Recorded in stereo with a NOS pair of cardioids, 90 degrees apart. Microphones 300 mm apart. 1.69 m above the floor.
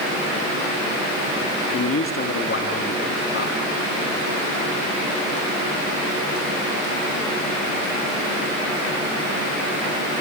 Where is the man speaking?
45° left, 3 m.